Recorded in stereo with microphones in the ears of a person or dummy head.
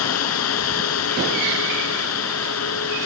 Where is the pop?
I don't hear a pop.